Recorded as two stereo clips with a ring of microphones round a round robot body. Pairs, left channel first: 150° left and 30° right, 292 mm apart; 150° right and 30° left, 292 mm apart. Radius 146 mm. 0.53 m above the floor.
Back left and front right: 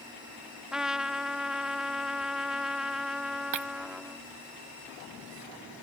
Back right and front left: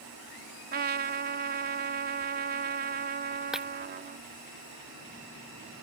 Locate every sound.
0.7 s a trumpet: 55° left
3.5 s breaking glass: 60° right